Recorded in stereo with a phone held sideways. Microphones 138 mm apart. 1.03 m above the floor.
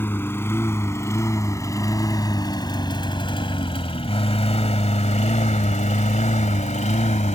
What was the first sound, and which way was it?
A lawn mower, 15° left (ahead or behind).